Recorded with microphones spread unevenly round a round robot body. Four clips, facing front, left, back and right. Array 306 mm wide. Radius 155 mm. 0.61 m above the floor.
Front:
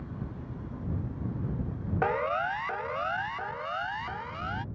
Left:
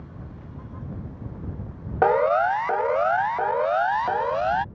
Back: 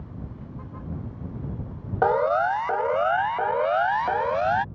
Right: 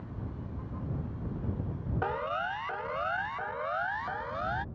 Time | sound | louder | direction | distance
2.0 | a siren | left 15 dB, back 8 dB | 110° left | ?